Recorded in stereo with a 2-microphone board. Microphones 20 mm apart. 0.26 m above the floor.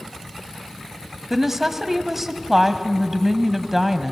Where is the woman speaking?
15° right (ahead or behind), 1.4 m.